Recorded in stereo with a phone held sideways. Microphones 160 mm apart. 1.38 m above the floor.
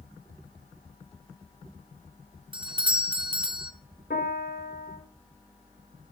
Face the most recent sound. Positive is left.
turn(degrees=70)  # may be behind; listen again after turning